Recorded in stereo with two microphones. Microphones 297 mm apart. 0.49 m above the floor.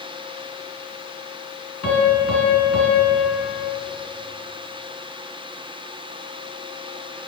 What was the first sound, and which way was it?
A piano, 55° left (ahead or behind).